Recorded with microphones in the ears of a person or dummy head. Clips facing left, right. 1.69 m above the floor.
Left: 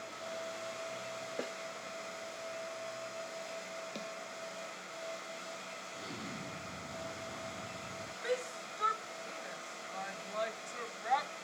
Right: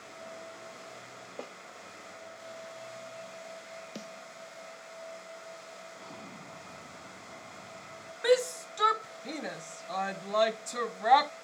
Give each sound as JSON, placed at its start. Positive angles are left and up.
{"t": 1.4, "sound": "a snare drum", "side_deg": 15}
{"t": 4.0, "sound": "a snare drum", "side_deg": -10}
{"t": 5.9, "sound": "an explosion", "side_deg": 20}
{"t": 8.2, "sound": "a shout", "side_deg": -80}